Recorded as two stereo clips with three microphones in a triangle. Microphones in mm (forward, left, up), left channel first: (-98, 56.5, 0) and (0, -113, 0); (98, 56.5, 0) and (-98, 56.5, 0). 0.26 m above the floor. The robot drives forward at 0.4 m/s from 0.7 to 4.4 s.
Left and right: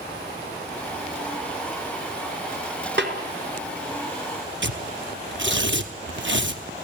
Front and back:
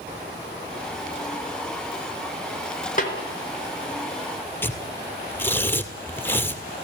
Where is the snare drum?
45° right, 4.5 m.